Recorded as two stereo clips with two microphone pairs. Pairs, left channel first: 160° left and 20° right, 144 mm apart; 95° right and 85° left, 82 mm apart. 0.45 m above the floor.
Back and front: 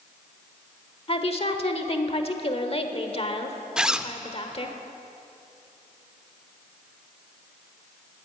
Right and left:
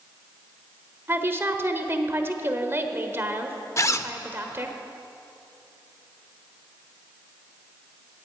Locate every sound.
1.1 s a woman speaking: 135° left, 1.1 m
3.8 s a zipper: 105° right, 0.5 m